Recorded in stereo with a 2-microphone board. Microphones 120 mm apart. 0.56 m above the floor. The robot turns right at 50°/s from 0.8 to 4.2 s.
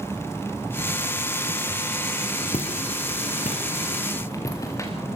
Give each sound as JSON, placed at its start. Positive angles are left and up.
{"t": 2.5, "sound": "footsteps", "side_deg": 60, "distance_m": 5.0}